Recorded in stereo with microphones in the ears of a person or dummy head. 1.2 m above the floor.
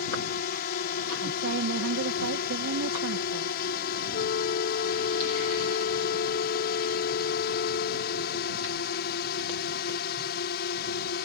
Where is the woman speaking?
80° right.